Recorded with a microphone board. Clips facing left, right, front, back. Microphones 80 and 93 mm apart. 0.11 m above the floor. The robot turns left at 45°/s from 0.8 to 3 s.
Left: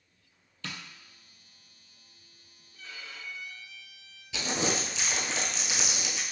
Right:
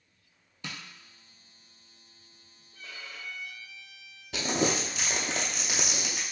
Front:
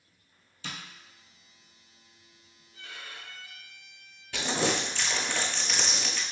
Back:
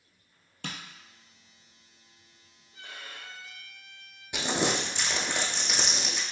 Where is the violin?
120° right, 1.2 m; by 4.2 s 135° right, 1.2 m.